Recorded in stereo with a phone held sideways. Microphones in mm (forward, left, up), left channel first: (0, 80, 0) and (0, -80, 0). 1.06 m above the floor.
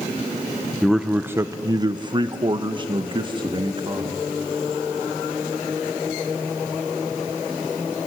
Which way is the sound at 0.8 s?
Centre (ahead or behind).